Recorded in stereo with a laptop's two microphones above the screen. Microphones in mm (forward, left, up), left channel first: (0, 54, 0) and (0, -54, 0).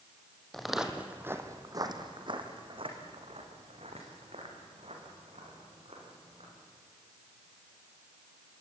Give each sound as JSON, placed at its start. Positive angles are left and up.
{"t": 0.5, "sound": "footsteps", "side_deg": 5, "distance_m": 2.5}